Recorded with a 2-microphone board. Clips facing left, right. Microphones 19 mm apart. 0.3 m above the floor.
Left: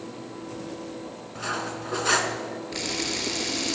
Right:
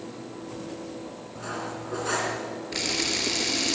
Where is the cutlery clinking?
50° left (ahead or behind), 1.9 m.